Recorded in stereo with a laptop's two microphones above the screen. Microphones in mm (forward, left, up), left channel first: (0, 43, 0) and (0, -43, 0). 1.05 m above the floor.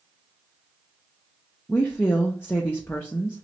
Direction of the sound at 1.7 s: 20° left (ahead or behind).